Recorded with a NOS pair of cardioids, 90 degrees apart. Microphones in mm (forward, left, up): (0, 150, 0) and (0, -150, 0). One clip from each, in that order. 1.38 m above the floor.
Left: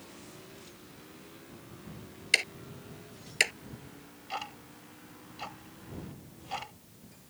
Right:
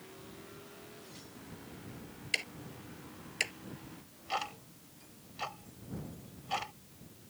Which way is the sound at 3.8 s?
20° right.